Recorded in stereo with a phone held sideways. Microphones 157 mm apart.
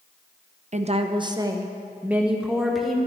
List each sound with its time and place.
0.7 s a woman speaking: 45° right (ahead or behind), 0.7 m; by 3.0 s centre (ahead or behind), 1.6 m